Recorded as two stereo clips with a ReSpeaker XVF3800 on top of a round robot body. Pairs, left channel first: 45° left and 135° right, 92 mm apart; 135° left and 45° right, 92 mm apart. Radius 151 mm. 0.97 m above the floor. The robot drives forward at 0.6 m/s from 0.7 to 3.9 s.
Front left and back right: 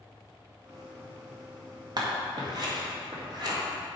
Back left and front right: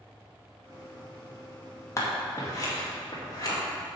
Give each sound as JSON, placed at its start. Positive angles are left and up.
{"t": 2.0, "sound": "scissors", "azimuth_deg": -170, "distance_m": 2.0}